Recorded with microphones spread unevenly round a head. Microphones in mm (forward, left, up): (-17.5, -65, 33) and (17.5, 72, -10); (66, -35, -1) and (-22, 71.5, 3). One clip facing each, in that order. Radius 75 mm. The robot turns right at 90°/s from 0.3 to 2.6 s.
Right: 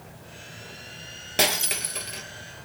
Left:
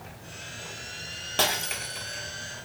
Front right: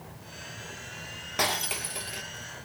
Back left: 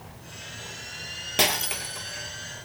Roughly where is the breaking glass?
Behind.